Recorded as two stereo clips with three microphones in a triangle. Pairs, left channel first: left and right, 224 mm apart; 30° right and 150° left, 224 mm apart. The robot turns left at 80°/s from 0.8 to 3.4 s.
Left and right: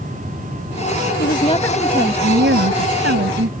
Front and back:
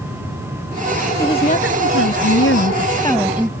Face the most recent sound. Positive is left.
turn(degrees=-130)